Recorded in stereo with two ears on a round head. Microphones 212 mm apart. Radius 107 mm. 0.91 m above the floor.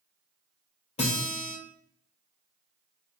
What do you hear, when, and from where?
1.0 s a guitar: 25° left (ahead or behind), 1.2 m